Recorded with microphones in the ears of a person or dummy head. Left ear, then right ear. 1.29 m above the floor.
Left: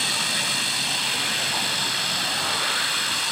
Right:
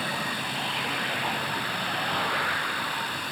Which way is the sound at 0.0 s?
40° left (ahead or behind).